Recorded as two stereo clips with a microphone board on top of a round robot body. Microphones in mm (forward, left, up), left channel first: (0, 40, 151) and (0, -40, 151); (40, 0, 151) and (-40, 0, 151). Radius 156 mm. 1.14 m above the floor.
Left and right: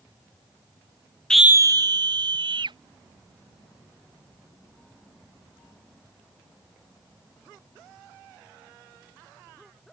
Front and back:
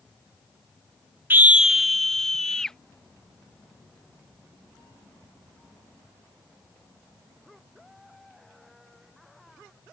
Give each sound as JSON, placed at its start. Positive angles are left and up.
{"t": 1.3, "sound": "a scream", "azimuth_deg": 155}